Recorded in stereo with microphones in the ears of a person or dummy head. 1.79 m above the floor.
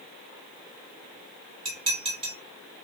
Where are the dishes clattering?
30° right (ahead or behind), 1.5 m.